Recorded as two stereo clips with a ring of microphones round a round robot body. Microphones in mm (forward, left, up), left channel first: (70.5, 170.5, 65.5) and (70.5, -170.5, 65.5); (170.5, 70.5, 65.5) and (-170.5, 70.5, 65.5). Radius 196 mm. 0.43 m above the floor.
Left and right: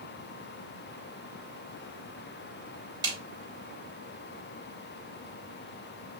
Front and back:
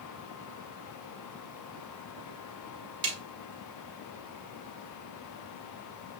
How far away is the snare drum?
About 1.4 m.